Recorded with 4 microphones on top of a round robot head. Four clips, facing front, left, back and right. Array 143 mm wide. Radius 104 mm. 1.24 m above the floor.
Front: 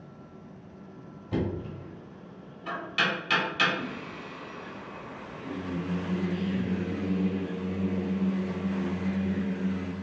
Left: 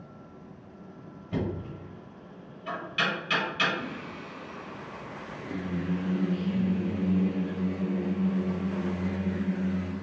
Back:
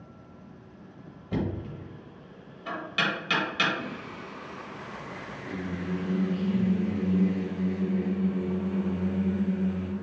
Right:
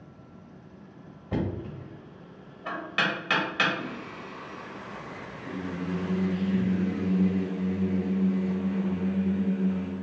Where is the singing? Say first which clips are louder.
Even, even; 100° left, 1.7 m.